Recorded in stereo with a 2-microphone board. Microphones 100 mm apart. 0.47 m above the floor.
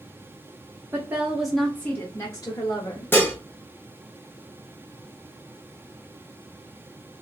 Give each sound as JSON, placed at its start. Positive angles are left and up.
{"t": 0.9, "sound": "a woman speaking", "side_deg": -25, "distance_m": 0.7}
{"t": 3.1, "sound": "dishes clattering", "side_deg": 20, "distance_m": 0.8}